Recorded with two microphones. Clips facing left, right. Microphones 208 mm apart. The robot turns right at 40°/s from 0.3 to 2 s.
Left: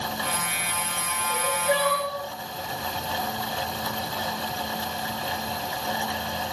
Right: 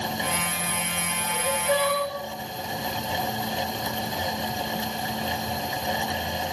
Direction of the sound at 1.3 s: 30° left (ahead or behind).